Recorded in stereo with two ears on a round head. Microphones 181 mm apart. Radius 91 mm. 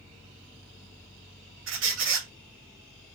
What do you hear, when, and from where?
1.7 s a squeak: 65° right (ahead or behind), 1.0 m